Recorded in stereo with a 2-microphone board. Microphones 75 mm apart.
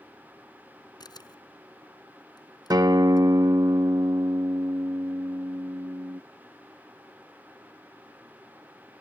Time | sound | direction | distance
1.0 | a camera shutter | 60° left (ahead or behind) | ?
2.7 | a guitar | 55° right (ahead or behind) | ?